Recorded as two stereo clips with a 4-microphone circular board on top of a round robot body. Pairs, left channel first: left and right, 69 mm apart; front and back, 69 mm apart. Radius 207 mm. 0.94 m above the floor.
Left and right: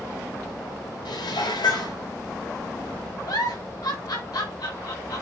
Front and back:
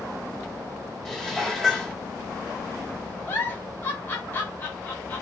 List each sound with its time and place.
1.1 s dishes clattering: 85° left, 3 m
3.3 s a giggle: 65° left, 5 m